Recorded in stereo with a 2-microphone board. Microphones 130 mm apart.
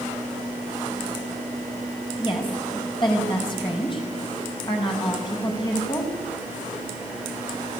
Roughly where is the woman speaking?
Left.